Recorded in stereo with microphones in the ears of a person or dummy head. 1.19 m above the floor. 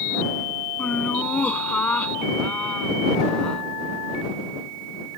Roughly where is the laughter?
Centre.